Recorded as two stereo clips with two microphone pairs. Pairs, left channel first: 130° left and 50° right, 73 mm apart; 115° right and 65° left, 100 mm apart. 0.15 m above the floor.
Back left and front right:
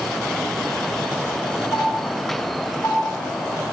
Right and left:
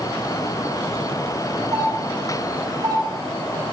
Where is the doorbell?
105° left, 2.5 m.